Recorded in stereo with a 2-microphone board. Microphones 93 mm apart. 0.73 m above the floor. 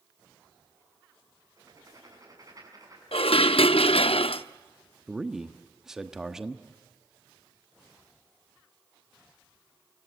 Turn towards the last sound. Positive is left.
turn(degrees=-5)  # may be behind; listen again after turning